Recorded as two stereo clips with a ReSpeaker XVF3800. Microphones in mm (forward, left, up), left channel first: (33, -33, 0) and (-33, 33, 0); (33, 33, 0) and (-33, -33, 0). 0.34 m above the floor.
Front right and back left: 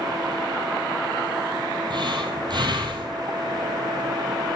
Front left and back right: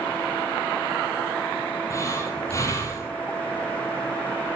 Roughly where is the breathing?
Left.